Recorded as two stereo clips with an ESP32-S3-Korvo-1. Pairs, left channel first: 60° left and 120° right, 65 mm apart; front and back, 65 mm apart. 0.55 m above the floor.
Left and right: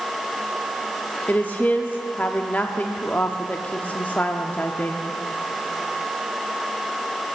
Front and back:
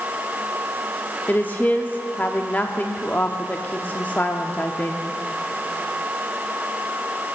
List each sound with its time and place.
1.3 s a woman speaking: 30° left, 0.7 m